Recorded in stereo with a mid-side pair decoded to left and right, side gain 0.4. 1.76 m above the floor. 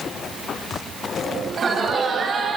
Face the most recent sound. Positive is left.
turn(degrees=-65)